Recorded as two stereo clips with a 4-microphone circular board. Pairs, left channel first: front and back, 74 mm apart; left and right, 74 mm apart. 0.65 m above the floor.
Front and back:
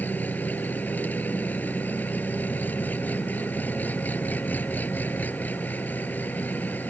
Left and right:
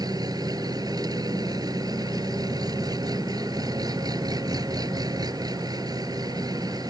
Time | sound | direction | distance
0.0 | an engine running | 65° right | ?